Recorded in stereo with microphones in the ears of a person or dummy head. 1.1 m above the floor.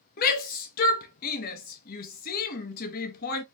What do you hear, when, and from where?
0.2 s a shout: 55° left (ahead or behind), 0.9 m